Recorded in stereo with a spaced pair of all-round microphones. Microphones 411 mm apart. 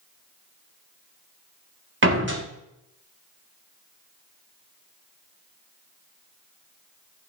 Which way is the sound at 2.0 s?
30° right (ahead or behind).